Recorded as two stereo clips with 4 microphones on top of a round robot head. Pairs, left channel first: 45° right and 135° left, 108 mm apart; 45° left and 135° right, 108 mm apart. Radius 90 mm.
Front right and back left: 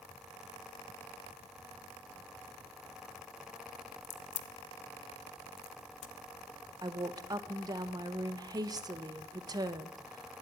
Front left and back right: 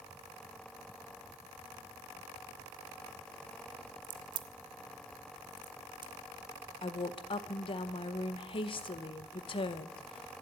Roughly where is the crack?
Right.